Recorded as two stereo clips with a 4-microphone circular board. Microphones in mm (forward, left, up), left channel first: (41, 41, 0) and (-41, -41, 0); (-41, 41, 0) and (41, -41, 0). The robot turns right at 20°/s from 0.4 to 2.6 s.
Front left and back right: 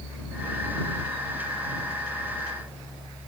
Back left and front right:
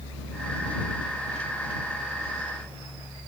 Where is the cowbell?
No cowbell in this recording.